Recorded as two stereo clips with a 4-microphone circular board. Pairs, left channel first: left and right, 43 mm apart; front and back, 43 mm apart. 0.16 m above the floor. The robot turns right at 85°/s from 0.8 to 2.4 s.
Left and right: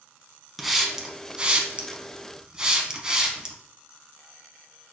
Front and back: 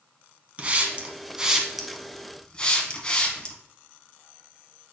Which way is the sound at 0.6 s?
175° right.